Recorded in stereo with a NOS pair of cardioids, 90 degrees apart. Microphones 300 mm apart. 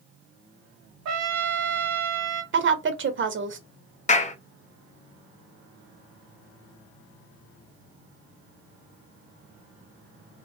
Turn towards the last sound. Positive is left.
turn(degrees=25)